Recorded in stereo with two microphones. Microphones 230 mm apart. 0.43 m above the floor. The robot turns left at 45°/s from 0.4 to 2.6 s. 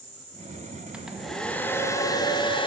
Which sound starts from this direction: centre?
A hair dryer, at 0.9 s.